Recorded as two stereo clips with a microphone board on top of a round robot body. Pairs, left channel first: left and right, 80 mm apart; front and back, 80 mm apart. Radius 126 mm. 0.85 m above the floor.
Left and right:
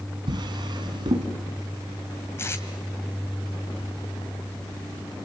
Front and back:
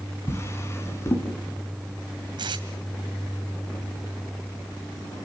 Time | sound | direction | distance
0.3 | a drawer | 60° right | 3 m
2.4 | tape being pulled | 150° left | 2 m